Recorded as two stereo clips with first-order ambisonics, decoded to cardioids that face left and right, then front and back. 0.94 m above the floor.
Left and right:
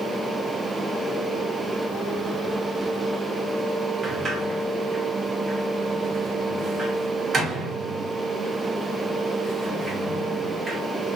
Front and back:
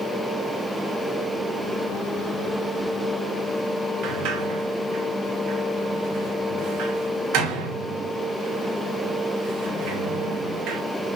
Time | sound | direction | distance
4.0 | a sliding door | 155° right | 0.8 m